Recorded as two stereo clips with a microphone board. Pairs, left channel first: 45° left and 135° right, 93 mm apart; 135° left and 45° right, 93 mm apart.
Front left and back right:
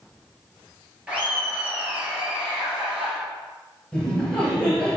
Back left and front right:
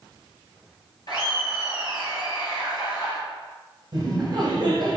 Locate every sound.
1.1 s laughter: 150° left, 1.9 m
3.9 s laughter: 30° right, 1.9 m